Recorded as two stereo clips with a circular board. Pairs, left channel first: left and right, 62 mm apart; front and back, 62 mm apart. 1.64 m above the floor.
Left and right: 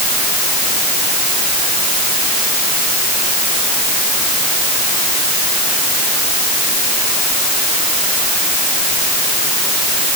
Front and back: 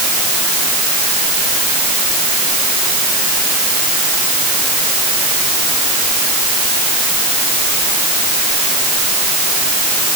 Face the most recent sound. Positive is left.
No sound to turn to.